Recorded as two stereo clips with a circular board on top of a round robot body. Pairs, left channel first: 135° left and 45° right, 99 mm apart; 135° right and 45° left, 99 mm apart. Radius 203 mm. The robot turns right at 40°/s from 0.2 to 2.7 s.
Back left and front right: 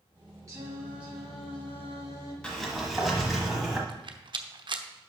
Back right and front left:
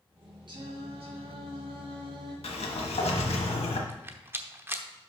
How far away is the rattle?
About 0.9 m.